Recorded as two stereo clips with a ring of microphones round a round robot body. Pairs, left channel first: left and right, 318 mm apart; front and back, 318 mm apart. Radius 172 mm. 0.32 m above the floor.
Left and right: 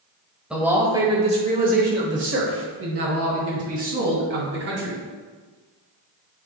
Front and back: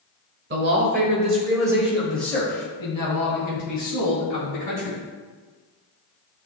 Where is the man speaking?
175° right, 1.5 m; by 5.0 s 50° right, 3 m.